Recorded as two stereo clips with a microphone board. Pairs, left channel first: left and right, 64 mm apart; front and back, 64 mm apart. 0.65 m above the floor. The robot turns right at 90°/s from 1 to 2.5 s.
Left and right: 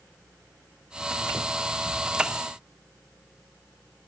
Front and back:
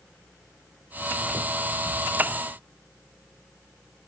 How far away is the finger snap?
I don't hear a finger snap.